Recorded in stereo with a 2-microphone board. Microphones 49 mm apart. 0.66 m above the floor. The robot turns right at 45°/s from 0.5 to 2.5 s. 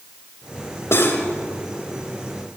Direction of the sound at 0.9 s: 65° left (ahead or behind).